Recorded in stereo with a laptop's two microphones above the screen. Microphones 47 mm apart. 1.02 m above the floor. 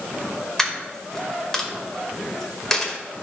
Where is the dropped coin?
10° left (ahead or behind), 1.8 m.